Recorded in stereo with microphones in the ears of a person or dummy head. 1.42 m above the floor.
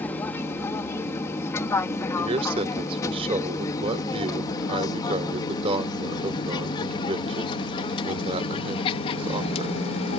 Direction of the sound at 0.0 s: 15° left (ahead or behind).